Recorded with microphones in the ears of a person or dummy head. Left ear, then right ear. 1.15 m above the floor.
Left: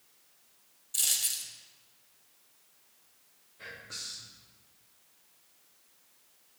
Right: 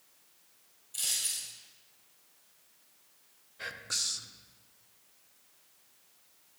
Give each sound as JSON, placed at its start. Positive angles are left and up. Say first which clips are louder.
{"t": 0.9, "sound": "a dropped coin", "louder": "left 3 dB", "side_deg": 25, "distance_m": 1.7}
{"t": 3.6, "sound": "whispering", "louder": "right 7 dB", "side_deg": -30, "distance_m": 0.5}